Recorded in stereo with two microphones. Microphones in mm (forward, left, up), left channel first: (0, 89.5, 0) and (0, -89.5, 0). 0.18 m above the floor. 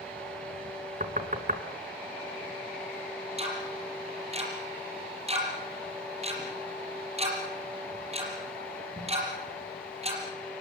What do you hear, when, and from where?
1.0 s knocking: 50° right (ahead or behind), 1.6 m
3.4 s ticking: 35° right (ahead or behind), 6.5 m